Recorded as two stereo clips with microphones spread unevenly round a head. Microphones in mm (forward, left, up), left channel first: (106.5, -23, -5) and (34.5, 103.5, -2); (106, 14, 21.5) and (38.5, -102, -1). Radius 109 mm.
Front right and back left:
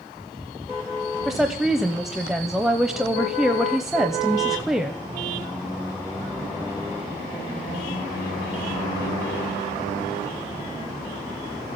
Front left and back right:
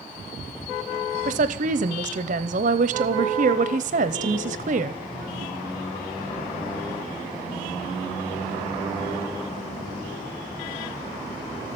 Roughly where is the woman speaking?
Behind right.